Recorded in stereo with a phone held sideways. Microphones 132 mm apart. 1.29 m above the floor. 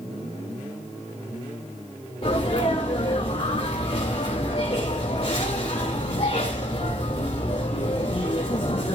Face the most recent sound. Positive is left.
turn(degrees=50)  # may be behind; listen again after turning